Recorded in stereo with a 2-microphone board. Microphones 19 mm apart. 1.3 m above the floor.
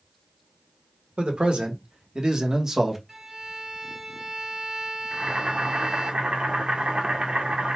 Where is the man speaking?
65° right (ahead or behind), 1.4 m; by 3.0 s 20° right (ahead or behind), 1.0 m.